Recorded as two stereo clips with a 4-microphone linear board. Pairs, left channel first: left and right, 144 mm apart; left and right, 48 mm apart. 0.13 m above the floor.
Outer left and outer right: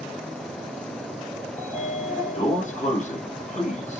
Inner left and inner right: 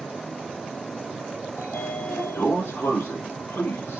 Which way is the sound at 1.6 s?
60° left (ahead or behind).